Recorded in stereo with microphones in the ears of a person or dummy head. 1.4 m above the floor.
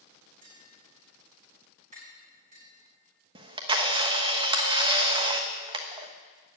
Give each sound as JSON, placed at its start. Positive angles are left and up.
{"t": 0.4, "sound": "tapping", "side_deg": -40, "distance_m": 8.0}
{"t": 3.4, "sound": "a camera shutter", "side_deg": -25, "distance_m": 1.2}